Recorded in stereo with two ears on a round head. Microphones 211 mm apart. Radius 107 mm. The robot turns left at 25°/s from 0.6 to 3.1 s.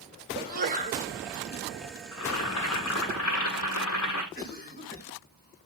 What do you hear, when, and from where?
0.3 s a sneeze: 45° right (ahead or behind), 4 m; by 1.1 s 30° right (ahead or behind), 4 m
2.1 s boiling: 75° left (ahead or behind), 9 m
4.3 s a cough: 45° left (ahead or behind), 5.5 m